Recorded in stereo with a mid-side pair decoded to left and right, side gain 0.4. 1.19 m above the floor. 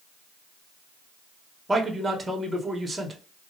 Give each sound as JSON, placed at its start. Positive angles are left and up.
{"t": 1.7, "sound": "a man speaking", "azimuth_deg": -25, "distance_m": 1.1}